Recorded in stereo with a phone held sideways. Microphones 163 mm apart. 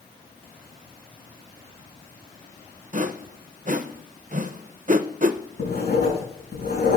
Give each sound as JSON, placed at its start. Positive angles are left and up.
{"t": 2.9, "sound": "a whoosh", "side_deg": -55, "distance_m": 0.5}
{"t": 5.6, "sound": "writing", "side_deg": 90, "distance_m": 5.5}